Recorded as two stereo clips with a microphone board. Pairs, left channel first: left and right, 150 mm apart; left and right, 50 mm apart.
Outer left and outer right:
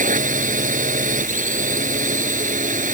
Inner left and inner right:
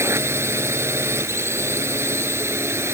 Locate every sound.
0.0 s a drone: 60° right (ahead or behind)